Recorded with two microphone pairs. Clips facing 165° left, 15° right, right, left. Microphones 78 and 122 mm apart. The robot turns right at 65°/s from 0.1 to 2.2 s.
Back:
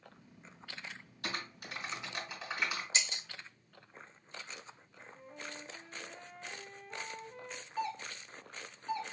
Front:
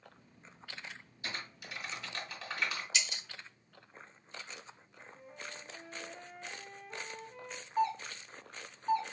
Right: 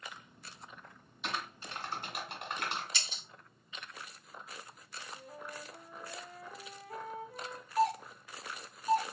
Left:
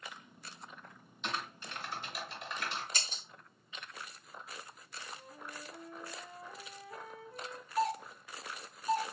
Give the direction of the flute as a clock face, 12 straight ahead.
3 o'clock.